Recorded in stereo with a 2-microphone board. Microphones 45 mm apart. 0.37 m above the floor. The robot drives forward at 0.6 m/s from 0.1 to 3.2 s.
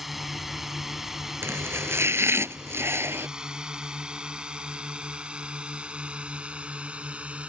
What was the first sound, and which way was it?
A drone, 5° right (ahead or behind).